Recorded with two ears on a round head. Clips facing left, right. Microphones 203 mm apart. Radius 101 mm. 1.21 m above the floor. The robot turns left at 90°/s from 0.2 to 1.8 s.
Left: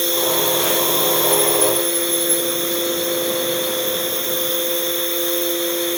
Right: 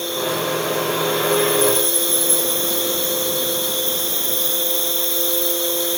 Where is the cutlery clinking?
No cutlery clinking in this recording.